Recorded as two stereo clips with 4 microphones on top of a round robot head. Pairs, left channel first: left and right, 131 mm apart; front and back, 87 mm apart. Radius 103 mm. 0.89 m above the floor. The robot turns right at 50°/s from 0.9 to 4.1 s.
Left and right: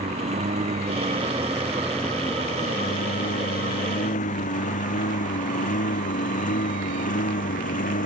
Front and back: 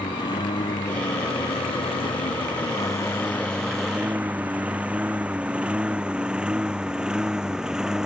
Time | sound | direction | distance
0.0 | a lawn mower | 45° right | ?